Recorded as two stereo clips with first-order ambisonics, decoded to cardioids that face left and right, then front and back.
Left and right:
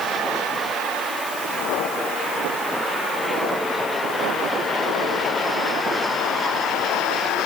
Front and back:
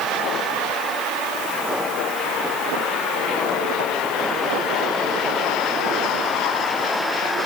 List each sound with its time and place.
Only background noise.